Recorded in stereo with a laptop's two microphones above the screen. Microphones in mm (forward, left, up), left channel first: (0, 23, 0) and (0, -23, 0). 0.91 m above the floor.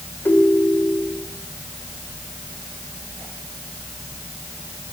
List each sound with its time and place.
0.2 s a ringtone: 50° left (ahead or behind), 2.5 m